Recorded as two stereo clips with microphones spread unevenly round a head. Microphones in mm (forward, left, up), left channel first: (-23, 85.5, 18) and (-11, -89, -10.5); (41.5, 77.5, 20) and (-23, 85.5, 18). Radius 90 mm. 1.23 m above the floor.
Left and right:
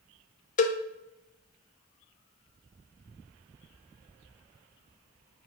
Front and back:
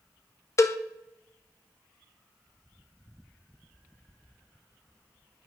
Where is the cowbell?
40° left, 0.6 m.